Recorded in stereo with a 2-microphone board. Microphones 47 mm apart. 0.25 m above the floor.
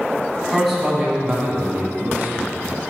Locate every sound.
0.5 s a man speaking: 10° left (ahead or behind), 2 m; by 2.6 s 35° right (ahead or behind), 3.5 m